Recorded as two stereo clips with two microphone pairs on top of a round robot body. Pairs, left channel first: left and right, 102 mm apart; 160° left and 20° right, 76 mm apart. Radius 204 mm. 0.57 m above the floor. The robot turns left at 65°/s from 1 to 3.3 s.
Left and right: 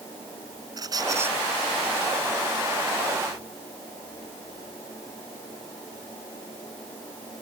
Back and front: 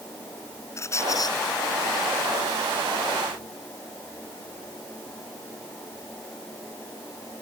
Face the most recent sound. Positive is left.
turn(degrees=65)